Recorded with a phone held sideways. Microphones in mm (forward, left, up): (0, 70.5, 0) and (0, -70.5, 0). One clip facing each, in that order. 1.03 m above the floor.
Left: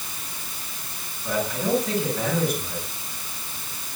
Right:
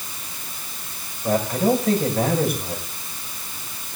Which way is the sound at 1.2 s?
50° right (ahead or behind).